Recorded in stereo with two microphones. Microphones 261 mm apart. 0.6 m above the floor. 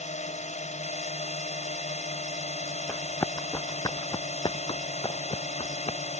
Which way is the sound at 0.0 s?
30° left (ahead or behind).